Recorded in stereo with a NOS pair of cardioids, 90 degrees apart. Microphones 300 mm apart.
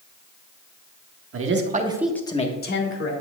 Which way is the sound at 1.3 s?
50° right.